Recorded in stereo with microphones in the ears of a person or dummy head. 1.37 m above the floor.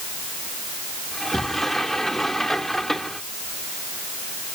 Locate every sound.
1.1 s a sliding door: 5° left (ahead or behind)